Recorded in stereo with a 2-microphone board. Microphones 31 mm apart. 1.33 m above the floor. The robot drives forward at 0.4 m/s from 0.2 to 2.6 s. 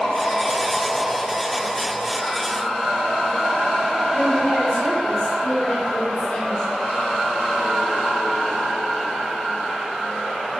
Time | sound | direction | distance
4.1 | a woman speaking | 40° left (ahead or behind) | 4.5 m